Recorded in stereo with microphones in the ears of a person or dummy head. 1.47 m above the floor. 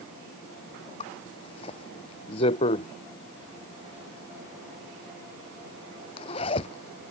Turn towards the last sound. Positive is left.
turn(degrees=35)  # may be behind; listen again after turning